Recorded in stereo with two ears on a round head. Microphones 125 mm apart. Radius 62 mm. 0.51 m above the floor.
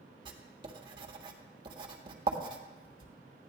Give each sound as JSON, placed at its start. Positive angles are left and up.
{"t": 0.2, "sound": "writing", "side_deg": -35, "distance_m": 1.7}